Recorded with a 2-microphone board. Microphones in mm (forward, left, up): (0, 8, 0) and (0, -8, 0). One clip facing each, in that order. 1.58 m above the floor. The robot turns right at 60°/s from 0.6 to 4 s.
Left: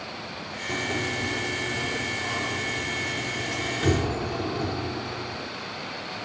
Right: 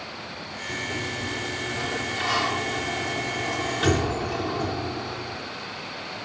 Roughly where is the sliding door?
Behind left.